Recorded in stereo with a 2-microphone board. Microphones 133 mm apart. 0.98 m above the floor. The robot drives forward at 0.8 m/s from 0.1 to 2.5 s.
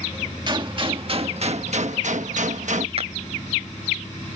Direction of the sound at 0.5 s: 35° right (ahead or behind).